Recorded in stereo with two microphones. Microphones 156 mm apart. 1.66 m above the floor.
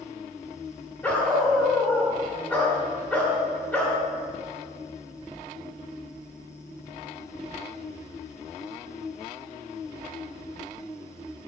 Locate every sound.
1.0 s a dog barking: 10° left (ahead or behind), 1.7 m